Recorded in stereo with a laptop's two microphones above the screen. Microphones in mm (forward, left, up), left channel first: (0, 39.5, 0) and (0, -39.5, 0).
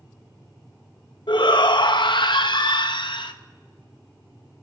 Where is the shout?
75° left (ahead or behind), 0.9 m.